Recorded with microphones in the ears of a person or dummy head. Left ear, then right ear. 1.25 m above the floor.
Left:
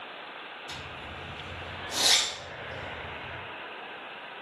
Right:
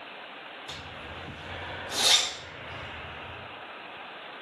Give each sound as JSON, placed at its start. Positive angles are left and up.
{"t": 0.7, "sound": "a zipper", "side_deg": -40, "distance_m": 1.5}